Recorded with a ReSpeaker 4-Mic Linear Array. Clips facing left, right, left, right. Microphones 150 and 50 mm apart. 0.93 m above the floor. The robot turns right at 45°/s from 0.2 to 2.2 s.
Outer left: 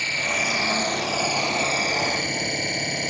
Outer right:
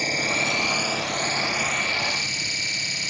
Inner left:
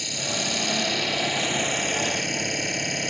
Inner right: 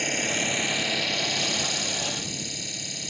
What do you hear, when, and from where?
0.0 s an engine running: 40° right; by 3.1 s 50° left